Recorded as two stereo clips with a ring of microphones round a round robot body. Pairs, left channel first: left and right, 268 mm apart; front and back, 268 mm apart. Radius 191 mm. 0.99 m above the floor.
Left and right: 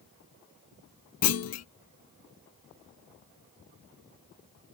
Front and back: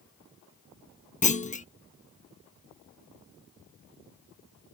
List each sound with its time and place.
1.2 s a clunk: 65° left